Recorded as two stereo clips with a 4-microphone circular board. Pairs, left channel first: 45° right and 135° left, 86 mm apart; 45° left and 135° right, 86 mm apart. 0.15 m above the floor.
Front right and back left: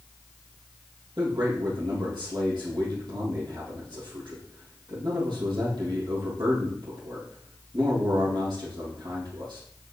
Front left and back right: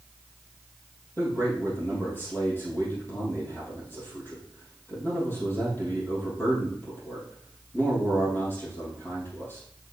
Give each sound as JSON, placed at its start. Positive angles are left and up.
{"t": 1.2, "sound": "a man speaking", "azimuth_deg": 110, "distance_m": 4.5}